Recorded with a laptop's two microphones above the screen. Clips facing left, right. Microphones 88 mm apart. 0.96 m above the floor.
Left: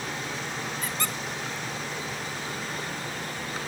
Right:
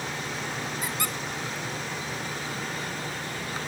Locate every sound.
0.8 s a squeak: 10° right (ahead or behind), 1.1 m